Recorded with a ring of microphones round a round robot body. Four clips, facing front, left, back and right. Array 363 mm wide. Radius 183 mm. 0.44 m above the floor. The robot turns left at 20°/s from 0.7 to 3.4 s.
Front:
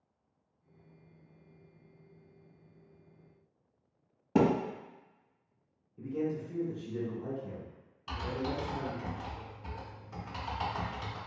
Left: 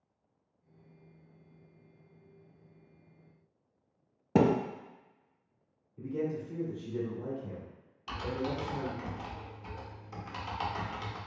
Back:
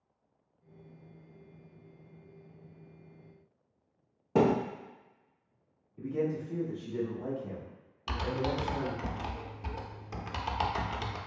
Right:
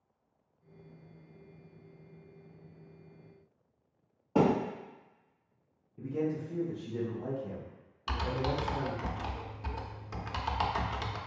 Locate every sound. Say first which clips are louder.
4.3 s a thud: left 1 dB, back 1 dB; 90° left, 0.9 m
6.0 s a man speaking: right 1 dB, back 2 dB; 130° left, 1.6 m
8.1 s typing on a keyboard: right 2 dB, back 3 dB; 155° right, 0.5 m